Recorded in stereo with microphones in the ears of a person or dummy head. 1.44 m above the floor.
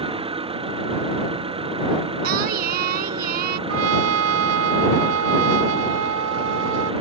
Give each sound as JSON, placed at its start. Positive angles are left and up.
{"t": 0.0, "sound": "an engine running", "side_deg": -25}
{"t": 2.2, "sound": "singing", "side_deg": -55}
{"t": 3.7, "sound": "a trumpet", "side_deg": -85}